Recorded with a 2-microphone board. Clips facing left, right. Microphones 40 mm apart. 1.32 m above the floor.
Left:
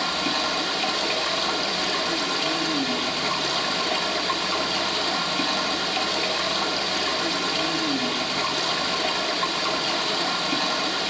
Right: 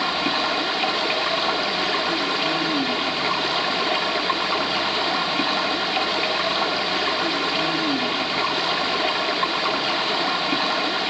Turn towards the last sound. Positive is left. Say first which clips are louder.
# right 3 dB
turn(degrees=-20)  # may be behind; listen again after turning